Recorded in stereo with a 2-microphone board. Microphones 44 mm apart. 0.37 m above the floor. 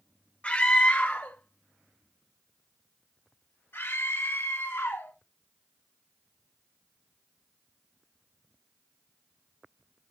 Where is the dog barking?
No dog barking in this recording.